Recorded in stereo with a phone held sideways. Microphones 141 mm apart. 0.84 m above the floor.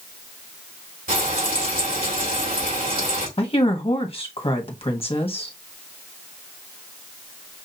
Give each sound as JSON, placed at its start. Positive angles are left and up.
{"t": 1.1, "sound": "frying", "side_deg": -80, "distance_m": 3.0}
{"t": 3.4, "sound": "a woman speaking", "side_deg": 40, "distance_m": 1.2}